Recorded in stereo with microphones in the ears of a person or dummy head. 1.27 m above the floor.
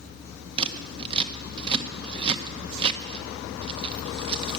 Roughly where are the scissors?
Right.